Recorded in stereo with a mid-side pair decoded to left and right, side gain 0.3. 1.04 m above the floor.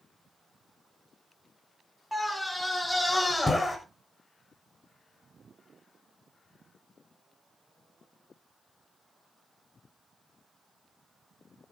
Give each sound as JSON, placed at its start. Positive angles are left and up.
{"t": 2.1, "sound": "a scream", "azimuth_deg": 10, "distance_m": 5.5}